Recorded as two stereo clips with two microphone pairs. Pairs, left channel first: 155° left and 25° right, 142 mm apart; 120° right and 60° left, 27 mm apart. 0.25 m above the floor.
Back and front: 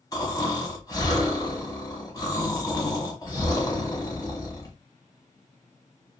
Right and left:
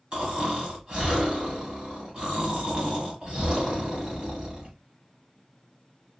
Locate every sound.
0.1 s snoring: 100° left, 1.4 m